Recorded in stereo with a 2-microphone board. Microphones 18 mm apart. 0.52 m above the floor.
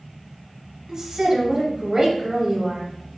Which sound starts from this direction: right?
A woman speaking, at 0.9 s.